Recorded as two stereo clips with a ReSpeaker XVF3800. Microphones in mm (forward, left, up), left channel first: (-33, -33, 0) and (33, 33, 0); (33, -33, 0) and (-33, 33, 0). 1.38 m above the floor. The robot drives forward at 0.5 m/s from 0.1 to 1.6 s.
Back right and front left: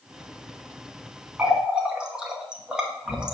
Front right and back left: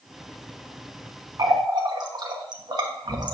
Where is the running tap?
115° left, 0.8 m; by 3.4 s 125° left, 0.9 m.